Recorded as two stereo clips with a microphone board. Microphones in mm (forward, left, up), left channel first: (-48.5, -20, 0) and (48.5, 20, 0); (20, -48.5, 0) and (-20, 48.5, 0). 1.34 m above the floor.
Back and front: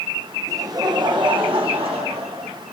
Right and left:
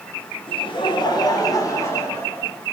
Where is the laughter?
35° right, 1.4 m; by 2.5 s straight ahead, 2.5 m.